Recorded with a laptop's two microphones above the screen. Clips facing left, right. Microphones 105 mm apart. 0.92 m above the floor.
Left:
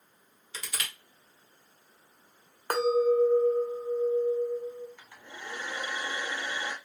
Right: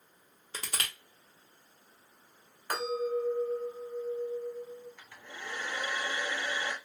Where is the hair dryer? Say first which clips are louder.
Left 1 dB; 15° left (ahead or behind), 1.1 m.